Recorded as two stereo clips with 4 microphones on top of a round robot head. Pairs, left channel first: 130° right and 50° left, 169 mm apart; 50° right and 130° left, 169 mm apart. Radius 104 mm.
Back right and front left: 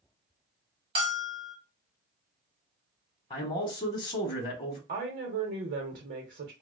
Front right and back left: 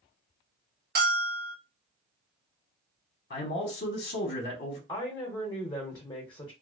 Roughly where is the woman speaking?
Ahead.